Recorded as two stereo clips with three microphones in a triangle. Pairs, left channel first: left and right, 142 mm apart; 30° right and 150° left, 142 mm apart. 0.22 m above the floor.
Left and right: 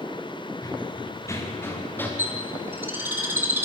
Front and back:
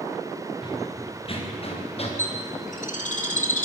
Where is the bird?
15° right, 2.5 m.